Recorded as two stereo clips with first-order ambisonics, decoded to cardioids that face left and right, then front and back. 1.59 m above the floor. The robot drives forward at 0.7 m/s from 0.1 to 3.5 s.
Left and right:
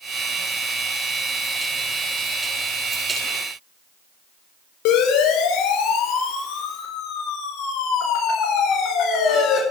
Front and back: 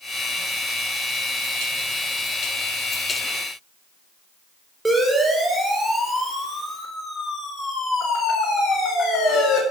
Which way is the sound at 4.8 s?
95° left.